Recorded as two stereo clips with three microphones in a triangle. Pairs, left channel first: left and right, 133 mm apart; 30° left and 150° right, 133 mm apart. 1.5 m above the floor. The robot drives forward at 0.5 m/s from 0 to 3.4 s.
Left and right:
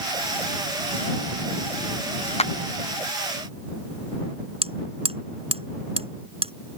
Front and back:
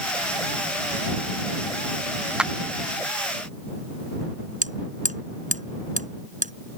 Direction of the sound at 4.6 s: 135° right.